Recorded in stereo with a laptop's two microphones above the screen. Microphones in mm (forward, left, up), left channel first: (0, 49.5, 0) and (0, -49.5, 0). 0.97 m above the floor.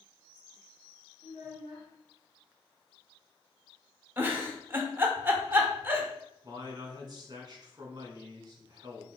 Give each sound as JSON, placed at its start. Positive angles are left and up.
{"t": 1.2, "sound": "a child speaking", "side_deg": 85, "distance_m": 0.9}
{"t": 4.2, "sound": "a giggle", "side_deg": -25, "distance_m": 0.7}
{"t": 6.4, "sound": "a man speaking", "side_deg": -40, "distance_m": 1.2}